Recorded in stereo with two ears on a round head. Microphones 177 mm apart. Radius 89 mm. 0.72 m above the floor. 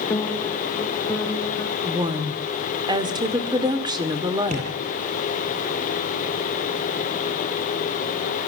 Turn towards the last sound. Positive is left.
turn(degrees=-40)  # may be behind; listen again after turning